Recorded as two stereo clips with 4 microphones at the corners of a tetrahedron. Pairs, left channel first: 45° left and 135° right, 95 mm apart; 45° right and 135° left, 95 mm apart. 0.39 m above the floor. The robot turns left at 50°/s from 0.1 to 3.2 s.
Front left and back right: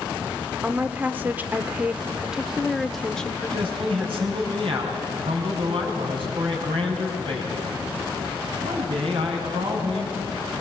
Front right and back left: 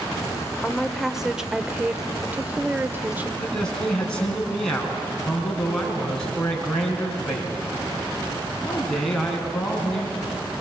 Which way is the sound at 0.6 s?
120° right.